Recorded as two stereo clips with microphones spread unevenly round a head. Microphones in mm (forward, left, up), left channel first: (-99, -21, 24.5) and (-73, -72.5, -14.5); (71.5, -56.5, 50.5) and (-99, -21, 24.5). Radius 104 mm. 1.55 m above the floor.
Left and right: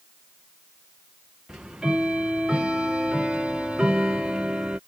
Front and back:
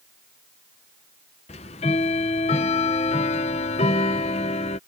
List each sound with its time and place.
1.5 s ticking: 45° left